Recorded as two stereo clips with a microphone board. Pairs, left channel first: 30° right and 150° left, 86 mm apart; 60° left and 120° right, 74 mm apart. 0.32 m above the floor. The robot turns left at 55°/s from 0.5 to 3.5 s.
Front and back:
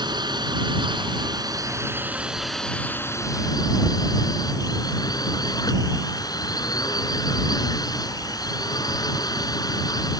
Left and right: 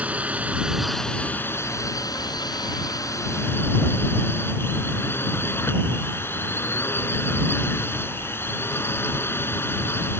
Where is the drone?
170° left; by 10.2 s 5° left.